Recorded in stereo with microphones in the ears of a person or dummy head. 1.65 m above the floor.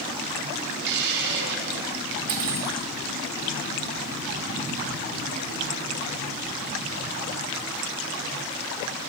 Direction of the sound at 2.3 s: 55° right (ahead or behind).